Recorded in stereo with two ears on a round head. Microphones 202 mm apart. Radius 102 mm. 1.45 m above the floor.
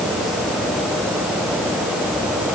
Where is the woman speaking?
I don't hear a woman speaking.